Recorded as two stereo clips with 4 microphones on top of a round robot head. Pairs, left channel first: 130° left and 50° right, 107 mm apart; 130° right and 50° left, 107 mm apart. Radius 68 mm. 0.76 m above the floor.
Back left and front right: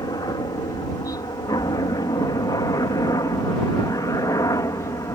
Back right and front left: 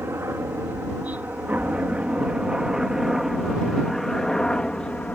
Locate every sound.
0.0 s a helicopter: 105° left; by 5.2 s 160° left